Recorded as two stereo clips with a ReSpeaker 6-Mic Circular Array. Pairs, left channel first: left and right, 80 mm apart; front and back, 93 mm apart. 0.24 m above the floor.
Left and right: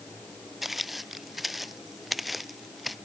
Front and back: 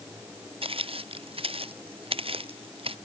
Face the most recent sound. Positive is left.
turn(degrees=180)